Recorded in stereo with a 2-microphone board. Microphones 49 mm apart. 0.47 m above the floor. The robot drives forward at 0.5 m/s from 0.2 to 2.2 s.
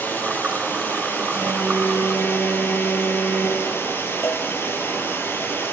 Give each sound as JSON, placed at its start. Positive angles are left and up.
{"t": 0.0, "sound": "running water", "side_deg": 50, "distance_m": 5.0}
{"t": 1.3, "sound": "an alarm", "side_deg": 50, "distance_m": 8.5}
{"t": 4.2, "sound": "a cowbell", "side_deg": 60, "distance_m": 2.0}